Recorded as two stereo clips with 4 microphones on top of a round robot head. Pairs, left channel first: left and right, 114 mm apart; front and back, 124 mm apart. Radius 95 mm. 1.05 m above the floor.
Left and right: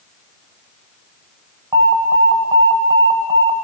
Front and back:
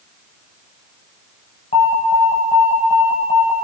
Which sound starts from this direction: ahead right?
An alarm, at 1.7 s.